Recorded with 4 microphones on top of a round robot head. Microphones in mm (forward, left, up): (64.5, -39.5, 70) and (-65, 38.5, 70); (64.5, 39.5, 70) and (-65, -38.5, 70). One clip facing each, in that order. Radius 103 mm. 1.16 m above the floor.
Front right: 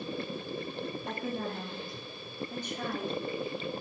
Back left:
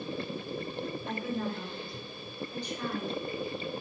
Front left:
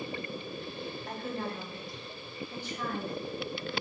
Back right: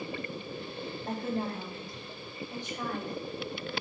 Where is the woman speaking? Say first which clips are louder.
Back left 2 dB, back right 5 dB; 85° right, 3 m; by 3.2 s 75° right, 3.5 m.